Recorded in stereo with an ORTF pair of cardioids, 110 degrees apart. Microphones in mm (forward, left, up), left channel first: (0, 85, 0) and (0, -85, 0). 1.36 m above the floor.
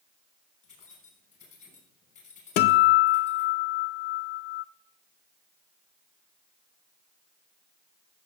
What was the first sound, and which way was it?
Keys jangling, 55° left.